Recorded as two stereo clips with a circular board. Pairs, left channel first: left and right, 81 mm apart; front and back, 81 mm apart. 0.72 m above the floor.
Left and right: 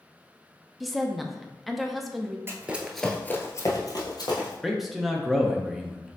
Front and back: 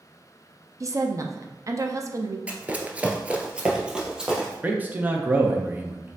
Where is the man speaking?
175° right, 0.6 m.